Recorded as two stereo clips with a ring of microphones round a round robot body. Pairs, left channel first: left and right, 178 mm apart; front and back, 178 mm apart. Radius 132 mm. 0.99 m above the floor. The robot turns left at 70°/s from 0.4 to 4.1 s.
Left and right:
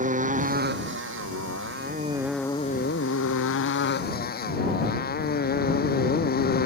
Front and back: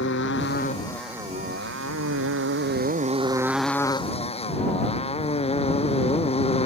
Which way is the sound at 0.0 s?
45° right.